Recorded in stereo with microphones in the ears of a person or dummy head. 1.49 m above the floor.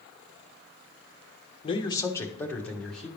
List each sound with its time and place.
1.6 s a man speaking: 25° left (ahead or behind), 0.8 m; by 3.1 s 5° left (ahead or behind), 1.5 m